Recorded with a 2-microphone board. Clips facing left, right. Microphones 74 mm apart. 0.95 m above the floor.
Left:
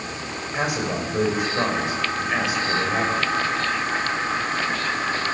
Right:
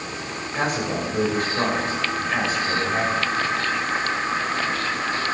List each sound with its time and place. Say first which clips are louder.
0.5 s a man speaking: right 1 dB; 10° left (ahead or behind), 5.5 m